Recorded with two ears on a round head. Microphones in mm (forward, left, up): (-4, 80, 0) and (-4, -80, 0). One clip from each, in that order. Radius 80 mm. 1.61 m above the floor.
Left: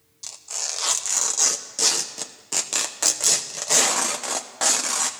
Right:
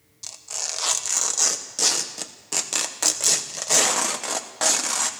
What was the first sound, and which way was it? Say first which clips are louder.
Tearing paper: even; centre (ahead or behind).